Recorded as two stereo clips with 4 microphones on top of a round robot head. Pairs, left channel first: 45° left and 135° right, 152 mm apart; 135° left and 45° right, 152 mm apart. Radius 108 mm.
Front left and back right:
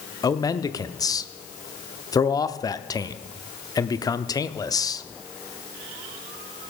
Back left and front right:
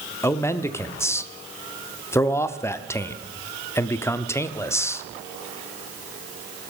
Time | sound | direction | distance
0.2 | a man speaking | 80° left | 0.8 m